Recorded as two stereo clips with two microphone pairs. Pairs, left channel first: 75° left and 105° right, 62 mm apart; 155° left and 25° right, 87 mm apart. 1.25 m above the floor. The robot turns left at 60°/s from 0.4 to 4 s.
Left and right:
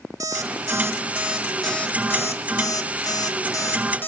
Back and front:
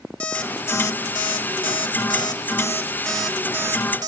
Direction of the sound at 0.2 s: 130° right.